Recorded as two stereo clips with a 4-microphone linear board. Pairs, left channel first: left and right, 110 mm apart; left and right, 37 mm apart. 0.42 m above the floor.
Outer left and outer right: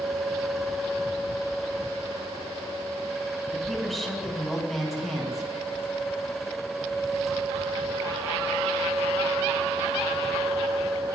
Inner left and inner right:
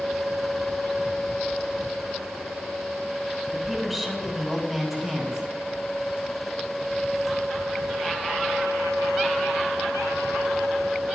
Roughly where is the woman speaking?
Centre.